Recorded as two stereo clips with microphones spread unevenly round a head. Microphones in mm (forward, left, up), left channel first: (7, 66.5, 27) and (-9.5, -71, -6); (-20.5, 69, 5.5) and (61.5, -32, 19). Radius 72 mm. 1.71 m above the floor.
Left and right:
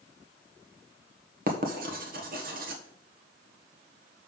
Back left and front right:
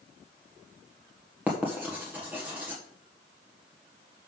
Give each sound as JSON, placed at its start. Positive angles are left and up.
{"t": 1.5, "sound": "writing", "azimuth_deg": -130, "distance_m": 1.3}